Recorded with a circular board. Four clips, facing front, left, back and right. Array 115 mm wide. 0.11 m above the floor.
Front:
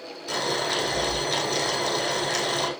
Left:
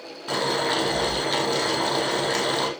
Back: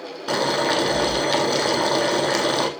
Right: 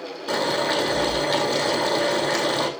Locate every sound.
0.3 s boiling: straight behind, 4 m